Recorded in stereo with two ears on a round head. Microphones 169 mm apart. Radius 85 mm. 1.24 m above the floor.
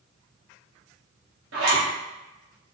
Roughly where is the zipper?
Right.